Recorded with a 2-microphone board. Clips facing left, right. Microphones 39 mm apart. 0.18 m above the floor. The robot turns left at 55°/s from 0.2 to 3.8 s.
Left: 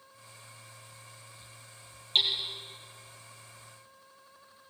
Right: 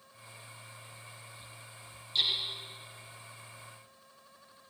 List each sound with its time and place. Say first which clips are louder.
2.1 s hammering: left 3 dB; 55° left (ahead or behind), 5.5 m; by 2.3 s 65° left (ahead or behind), 5.5 m